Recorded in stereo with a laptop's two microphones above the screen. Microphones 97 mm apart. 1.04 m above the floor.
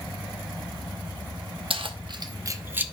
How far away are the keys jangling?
About 0.8 m.